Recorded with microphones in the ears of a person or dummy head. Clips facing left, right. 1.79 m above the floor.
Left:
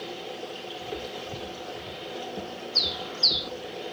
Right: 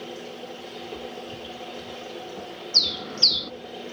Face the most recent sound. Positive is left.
turn(degrees=-40)  # may be behind; listen again after turning